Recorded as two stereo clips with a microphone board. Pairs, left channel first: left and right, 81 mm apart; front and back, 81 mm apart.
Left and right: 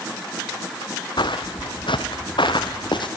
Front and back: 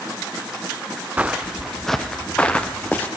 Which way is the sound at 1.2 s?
105° left.